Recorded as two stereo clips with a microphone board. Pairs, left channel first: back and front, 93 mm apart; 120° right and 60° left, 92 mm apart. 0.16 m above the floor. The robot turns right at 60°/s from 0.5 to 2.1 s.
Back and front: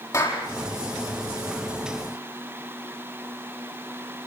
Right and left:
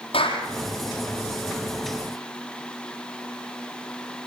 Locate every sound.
0.1 s a clap: 125° right, 4.5 m